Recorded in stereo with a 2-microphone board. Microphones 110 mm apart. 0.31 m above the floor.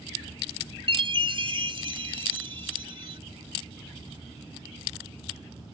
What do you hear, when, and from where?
0.9 s a chime: 55° right (ahead or behind)